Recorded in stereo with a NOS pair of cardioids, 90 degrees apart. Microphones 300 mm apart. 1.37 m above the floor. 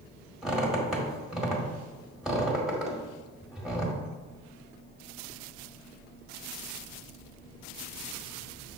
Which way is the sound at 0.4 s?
5° right.